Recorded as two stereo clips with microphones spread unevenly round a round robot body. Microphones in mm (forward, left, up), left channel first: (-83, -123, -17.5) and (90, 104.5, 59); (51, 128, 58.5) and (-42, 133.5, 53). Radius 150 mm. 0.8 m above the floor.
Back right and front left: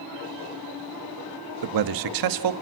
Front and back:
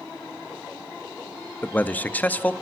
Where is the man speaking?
70° left, 1.0 m.